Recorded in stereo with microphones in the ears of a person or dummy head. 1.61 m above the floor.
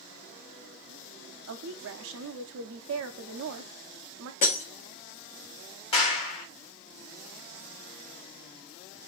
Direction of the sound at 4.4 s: 30° left (ahead or behind).